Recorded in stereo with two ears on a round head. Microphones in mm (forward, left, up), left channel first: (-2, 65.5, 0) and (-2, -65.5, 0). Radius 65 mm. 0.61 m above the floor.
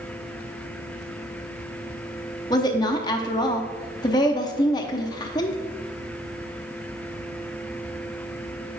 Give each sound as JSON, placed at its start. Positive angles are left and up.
{"t": 2.5, "sound": "a woman speaking", "side_deg": 25, "distance_m": 0.7}